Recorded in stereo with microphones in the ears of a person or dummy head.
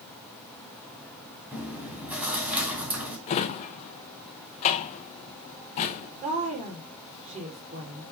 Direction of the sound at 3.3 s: 45° left (ahead or behind).